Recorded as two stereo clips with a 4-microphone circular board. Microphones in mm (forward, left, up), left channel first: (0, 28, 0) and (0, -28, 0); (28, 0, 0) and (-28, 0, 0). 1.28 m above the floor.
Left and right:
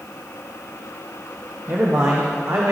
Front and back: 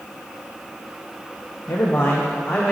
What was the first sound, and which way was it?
A man speaking, 40° right.